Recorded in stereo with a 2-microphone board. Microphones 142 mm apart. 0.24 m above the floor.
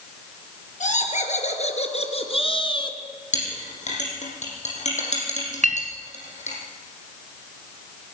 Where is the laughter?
60° left (ahead or behind), 4 m; by 3.0 s 30° left (ahead or behind), 2.5 m.